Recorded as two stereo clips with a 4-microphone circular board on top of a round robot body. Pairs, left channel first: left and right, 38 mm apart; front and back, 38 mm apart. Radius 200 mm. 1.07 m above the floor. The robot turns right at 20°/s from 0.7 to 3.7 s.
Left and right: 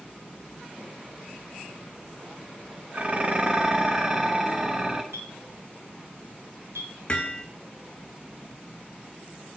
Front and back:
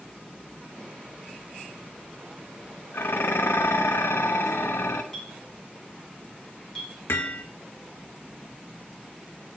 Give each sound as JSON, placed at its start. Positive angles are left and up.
{"t": 2.9, "sound": "dishes clattering", "azimuth_deg": -30, "distance_m": 0.8}
{"t": 5.1, "sound": "a clink", "azimuth_deg": -75, "distance_m": 4.0}
{"t": 7.1, "sound": "hammering", "azimuth_deg": 25, "distance_m": 1.3}